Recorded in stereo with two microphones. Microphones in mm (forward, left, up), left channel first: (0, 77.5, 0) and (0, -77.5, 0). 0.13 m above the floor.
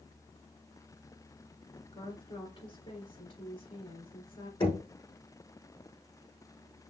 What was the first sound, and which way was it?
A woman speaking, 35° left (ahead or behind).